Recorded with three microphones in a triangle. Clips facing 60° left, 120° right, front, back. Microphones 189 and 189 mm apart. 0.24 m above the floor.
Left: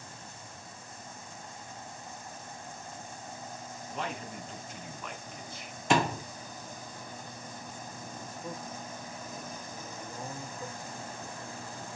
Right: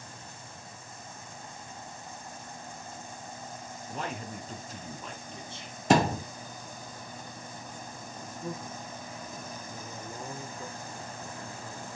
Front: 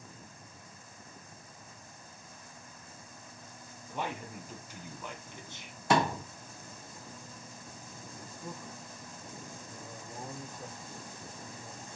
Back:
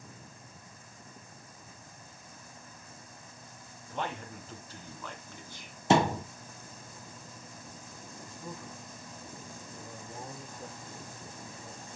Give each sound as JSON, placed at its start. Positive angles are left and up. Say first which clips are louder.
{"t": 3.9, "sound": "a man speaking", "louder": "right 1 dB, back 1 dB", "azimuth_deg": -80, "distance_m": 2.5}
{"t": 5.9, "sound": "a thud", "louder": "right 4 dB, back 3 dB", "azimuth_deg": -130, "distance_m": 0.7}
{"t": 8.2, "sound": "a man speaking", "louder": "right 4 dB, back 1 dB", "azimuth_deg": -85, "distance_m": 4.5}